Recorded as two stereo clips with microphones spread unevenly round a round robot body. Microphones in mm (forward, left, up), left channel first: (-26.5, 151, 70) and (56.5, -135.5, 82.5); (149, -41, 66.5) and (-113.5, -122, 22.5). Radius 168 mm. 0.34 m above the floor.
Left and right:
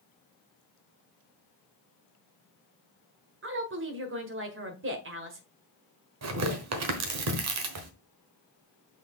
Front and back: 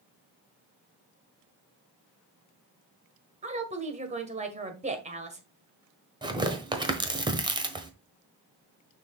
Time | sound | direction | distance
3.4 | a woman speaking | 110° right | 1.7 m
6.2 | tearing paper | 95° right | 1.3 m